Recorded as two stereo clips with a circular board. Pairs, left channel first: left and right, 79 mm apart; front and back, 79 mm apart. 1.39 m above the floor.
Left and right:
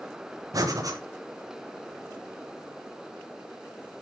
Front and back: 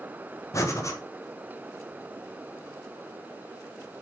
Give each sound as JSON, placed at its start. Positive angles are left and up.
{"t": 0.5, "sound": "breathing", "azimuth_deg": -50, "distance_m": 1.1}